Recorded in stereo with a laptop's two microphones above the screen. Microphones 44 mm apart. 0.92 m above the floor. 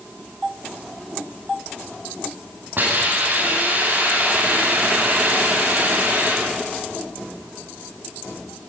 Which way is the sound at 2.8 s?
50° right (ahead or behind).